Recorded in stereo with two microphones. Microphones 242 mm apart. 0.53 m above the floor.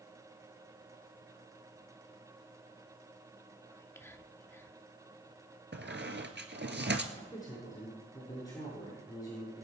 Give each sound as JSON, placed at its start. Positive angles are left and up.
{"t": 3.7, "sound": "whispering", "side_deg": 10, "distance_m": 0.7}
{"t": 5.7, "sound": "a squeak", "side_deg": -50, "distance_m": 1.4}
{"t": 7.1, "sound": "a man speaking", "side_deg": 15, "distance_m": 7.0}